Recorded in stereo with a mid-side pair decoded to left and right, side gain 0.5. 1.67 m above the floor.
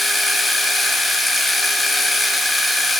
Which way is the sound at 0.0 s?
20° left.